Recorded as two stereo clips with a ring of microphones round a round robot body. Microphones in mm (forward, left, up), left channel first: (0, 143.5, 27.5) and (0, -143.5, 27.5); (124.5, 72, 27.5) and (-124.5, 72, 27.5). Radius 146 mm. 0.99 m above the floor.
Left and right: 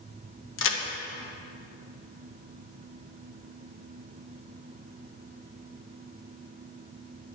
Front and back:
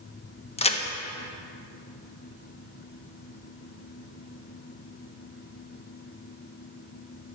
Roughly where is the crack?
Ahead left.